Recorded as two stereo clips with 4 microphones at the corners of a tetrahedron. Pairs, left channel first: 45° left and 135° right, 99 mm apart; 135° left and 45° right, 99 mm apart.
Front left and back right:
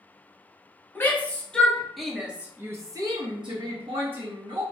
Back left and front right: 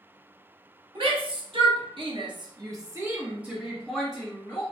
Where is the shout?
25° right, 1.3 m; by 4.6 s 150° right, 1.2 m.